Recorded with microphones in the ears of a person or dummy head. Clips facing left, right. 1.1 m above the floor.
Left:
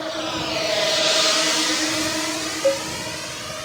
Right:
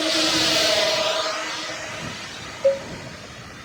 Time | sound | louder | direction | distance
0.0 | a drone | right 3 dB | 35° right (ahead or behind) | ?
2.6 | a cowbell | right 1 dB | 5° right (ahead or behind) | ?